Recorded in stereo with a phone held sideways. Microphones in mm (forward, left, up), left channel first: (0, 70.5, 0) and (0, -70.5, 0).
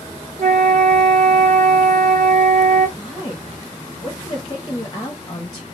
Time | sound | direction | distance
0.4 | a flute | 55° right (ahead or behind) | 1.1 m
3.0 | a woman speaking | 30° left (ahead or behind) | 0.7 m